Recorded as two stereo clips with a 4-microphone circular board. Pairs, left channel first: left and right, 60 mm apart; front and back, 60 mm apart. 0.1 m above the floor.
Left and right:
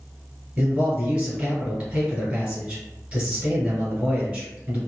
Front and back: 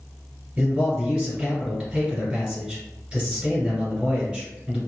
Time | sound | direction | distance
0.6 | a man speaking | 130° right | 1.7 m